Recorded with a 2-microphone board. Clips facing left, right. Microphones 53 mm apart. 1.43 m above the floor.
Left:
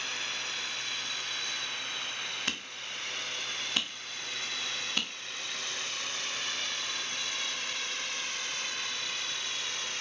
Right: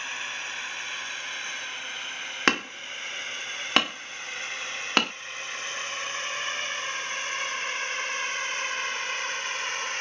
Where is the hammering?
75° right (ahead or behind).